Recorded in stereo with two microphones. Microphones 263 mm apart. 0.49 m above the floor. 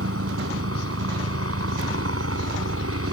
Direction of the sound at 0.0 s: 60° right (ahead or behind).